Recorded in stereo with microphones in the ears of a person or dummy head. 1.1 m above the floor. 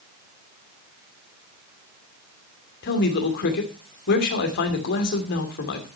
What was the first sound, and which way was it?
A man speaking, 55° left (ahead or behind).